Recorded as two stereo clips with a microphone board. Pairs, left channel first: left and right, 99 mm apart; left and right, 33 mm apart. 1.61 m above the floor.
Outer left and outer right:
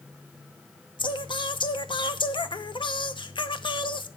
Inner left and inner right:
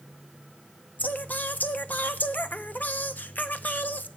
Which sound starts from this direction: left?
Singing, at 1.0 s.